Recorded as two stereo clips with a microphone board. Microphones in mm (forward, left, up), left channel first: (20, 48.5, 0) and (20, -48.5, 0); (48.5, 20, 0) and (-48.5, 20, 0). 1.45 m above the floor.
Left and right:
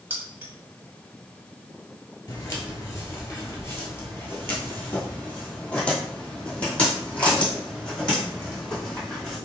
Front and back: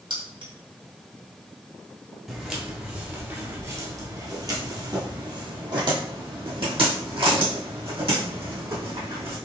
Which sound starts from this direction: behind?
Keys jangling, at 0.1 s.